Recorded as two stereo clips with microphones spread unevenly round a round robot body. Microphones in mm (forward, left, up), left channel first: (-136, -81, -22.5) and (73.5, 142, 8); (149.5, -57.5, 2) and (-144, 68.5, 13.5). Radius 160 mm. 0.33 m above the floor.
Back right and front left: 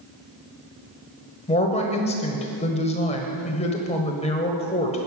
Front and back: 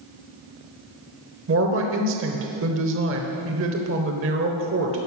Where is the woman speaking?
Straight behind, 1.2 m.